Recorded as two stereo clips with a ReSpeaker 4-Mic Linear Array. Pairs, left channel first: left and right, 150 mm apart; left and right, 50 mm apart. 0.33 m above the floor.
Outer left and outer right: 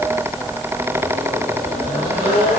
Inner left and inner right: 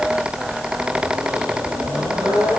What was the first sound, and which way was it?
Only background noise.